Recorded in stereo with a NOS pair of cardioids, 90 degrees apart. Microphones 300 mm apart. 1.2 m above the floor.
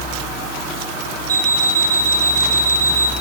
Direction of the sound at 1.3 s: 15° right.